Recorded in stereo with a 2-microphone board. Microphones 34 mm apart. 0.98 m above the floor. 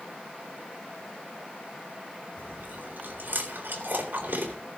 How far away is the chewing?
About 3 m.